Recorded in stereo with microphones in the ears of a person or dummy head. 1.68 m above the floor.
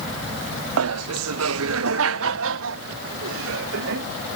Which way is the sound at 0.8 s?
75° right (ahead or behind).